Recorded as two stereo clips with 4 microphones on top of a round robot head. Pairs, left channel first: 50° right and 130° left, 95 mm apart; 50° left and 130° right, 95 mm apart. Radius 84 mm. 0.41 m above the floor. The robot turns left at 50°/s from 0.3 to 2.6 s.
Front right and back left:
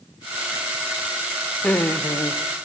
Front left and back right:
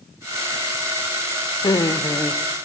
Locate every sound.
1.6 s laughter: 25° left, 1.2 m; by 2.4 s 15° right, 1.2 m